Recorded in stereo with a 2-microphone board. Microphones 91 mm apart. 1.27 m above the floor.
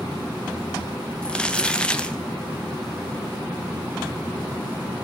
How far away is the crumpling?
About 0.7 m.